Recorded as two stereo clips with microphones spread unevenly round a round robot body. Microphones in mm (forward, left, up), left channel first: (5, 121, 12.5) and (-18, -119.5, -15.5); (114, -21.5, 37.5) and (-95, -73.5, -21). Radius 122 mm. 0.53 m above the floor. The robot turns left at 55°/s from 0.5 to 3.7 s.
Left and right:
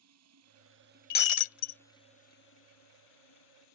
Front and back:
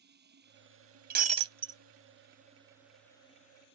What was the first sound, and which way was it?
Running water, 125° right.